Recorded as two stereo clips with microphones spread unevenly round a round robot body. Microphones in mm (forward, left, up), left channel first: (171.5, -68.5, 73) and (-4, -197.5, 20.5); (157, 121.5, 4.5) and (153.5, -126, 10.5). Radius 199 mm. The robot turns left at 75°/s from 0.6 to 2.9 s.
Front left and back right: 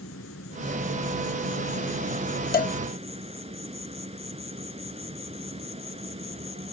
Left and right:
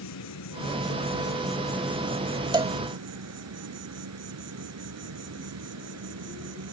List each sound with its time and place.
0.0 s an insect: 90° left; by 6.7 s 80° right
2.5 s a cowbell: 15° right; by 2.8 s 35° right